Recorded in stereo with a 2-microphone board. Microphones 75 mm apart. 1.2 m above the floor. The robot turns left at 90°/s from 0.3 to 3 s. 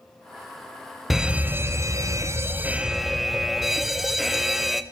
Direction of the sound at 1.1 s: 5° right.